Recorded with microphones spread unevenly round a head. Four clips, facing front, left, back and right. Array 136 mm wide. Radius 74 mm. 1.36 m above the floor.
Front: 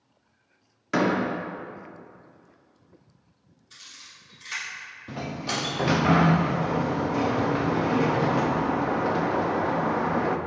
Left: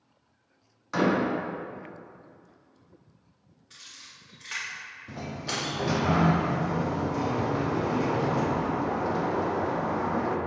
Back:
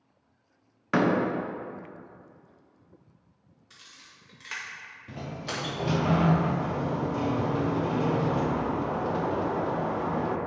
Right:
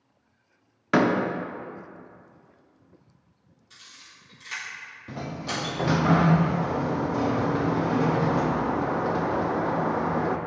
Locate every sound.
0.9 s a door slam: 85° right, 0.9 m
3.7 s a camera shutter: 170° left, 1.5 m
5.1 s a sliding door: 35° right, 0.5 m